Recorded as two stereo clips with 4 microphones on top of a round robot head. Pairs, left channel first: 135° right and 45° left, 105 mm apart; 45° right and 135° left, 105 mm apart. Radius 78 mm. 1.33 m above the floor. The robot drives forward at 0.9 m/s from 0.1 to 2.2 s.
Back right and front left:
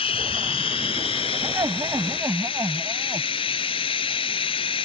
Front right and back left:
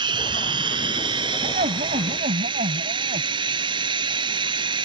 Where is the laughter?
110° left; by 3.3 s 115° left.